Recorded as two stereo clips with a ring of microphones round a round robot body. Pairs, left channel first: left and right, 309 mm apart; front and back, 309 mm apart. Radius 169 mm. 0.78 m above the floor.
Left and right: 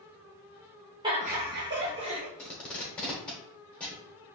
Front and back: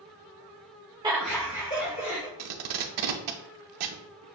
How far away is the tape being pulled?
About 0.7 m.